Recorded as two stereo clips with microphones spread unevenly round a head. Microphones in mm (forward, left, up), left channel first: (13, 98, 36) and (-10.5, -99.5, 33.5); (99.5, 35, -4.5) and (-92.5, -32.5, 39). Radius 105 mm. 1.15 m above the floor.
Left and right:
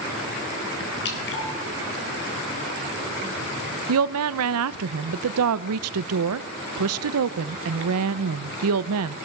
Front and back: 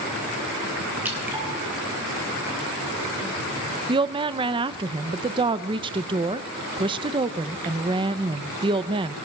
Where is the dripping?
120° left, 3.5 m.